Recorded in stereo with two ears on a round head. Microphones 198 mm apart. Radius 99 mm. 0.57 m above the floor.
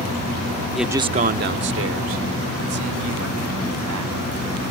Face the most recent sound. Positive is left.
turn(degrees=-80)